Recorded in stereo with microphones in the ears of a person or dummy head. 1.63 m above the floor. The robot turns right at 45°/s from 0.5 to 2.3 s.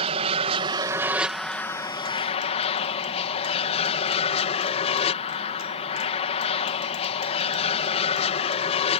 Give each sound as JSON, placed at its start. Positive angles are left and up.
{"t": 0.0, "sound": "an aircraft", "azimuth_deg": -40}